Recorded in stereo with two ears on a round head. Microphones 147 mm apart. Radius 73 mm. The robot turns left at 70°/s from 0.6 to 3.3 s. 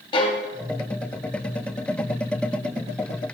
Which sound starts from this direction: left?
A violin, at 0.1 s.